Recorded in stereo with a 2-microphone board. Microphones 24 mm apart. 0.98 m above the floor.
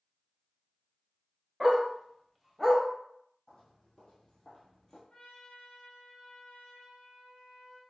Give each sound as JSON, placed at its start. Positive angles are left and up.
{"t": 1.6, "sound": "a dog barking", "side_deg": -15, "distance_m": 1.0}
{"t": 3.5, "sound": "footsteps", "side_deg": 30, "distance_m": 1.6}
{"t": 5.1, "sound": "a trumpet", "side_deg": 30, "distance_m": 1.2}